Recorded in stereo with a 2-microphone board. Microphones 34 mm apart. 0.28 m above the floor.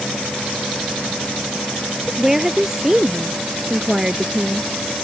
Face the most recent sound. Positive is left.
turn(degrees=-20)  # may be behind; listen again after turning